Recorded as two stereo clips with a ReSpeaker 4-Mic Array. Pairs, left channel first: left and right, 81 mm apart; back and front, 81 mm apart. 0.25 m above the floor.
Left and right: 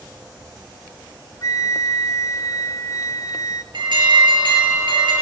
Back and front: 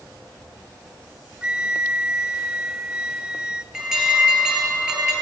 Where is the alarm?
80° right, 7 m.